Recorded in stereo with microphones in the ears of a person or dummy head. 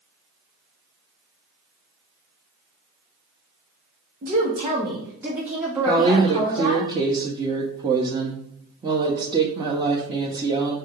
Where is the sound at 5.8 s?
30° right (ahead or behind), 1.0 m.